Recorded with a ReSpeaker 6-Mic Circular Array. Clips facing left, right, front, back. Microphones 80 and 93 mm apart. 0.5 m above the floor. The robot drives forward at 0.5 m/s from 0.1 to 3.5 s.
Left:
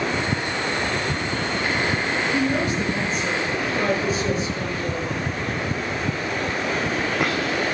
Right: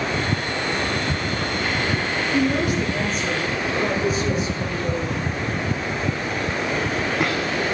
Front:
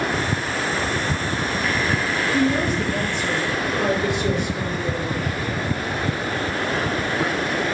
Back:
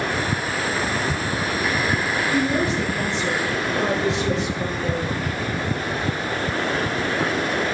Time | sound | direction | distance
2.3 | a woman speaking | 175° right | 6.5 m